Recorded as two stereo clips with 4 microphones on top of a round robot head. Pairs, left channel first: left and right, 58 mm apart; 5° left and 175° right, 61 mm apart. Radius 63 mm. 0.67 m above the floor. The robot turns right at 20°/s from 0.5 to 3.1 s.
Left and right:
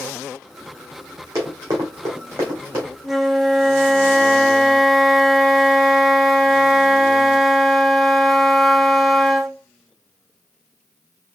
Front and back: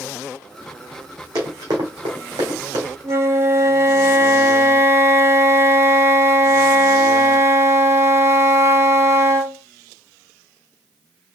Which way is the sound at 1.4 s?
140° right.